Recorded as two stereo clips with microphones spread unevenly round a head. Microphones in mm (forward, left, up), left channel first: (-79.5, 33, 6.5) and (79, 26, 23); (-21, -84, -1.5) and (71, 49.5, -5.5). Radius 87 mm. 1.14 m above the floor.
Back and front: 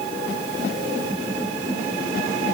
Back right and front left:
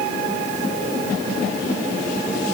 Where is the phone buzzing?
No phone buzzing in this recording.